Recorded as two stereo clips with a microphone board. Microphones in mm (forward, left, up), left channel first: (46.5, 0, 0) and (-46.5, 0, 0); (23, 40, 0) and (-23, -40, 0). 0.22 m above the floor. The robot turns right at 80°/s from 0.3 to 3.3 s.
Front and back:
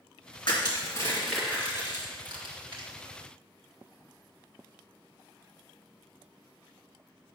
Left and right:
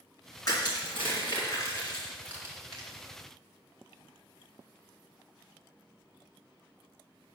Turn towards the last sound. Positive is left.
turn(degrees=-115)